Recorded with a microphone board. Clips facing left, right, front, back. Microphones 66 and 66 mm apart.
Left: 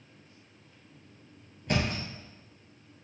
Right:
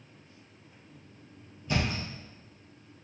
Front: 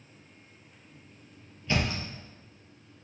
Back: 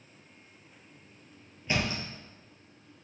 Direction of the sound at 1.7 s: 110° left.